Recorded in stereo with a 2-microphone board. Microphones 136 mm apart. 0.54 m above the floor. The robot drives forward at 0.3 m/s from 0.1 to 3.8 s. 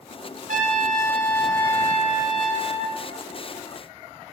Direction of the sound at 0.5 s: 75° right (ahead or behind).